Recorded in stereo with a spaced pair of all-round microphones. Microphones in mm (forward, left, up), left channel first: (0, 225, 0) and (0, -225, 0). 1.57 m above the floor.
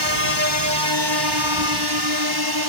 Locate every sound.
0.0 s a drone: 65° right (ahead or behind); by 2.7 s 55° right (ahead or behind)